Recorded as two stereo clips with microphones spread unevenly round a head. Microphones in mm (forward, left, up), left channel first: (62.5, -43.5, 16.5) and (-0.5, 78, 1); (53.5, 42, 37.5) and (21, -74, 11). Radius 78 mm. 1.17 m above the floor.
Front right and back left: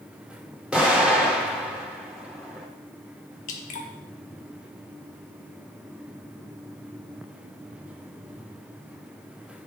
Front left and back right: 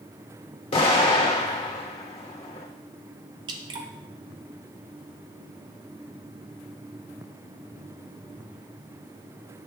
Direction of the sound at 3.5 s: 45° right.